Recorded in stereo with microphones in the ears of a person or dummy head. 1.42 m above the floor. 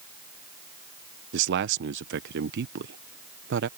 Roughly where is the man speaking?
Right.